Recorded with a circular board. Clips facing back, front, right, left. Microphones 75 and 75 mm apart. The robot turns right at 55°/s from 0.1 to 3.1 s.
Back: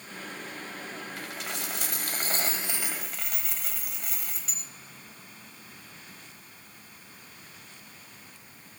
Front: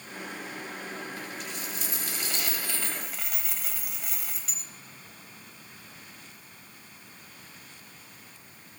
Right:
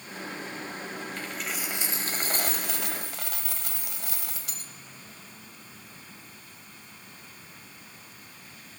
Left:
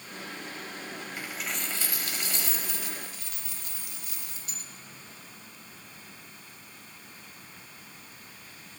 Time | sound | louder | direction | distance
1.2 | a dropped coin | back 1 dB, left 1 dB | 165° left | 0.9 m